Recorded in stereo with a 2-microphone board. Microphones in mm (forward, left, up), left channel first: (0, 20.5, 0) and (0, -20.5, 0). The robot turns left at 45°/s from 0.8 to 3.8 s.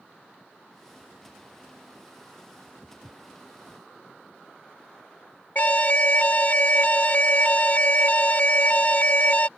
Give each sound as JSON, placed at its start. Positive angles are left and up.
{"t": 2.8, "sound": "footsteps", "side_deg": -10}
{"t": 5.5, "sound": "an alarm", "side_deg": 40}